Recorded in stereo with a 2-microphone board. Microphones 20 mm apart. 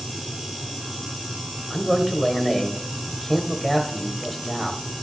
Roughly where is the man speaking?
Centre.